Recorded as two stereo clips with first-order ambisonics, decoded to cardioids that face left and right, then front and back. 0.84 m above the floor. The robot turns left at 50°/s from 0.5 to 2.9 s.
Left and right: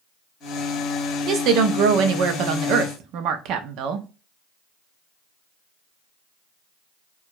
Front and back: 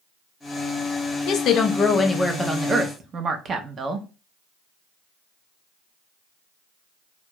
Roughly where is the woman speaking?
Ahead right.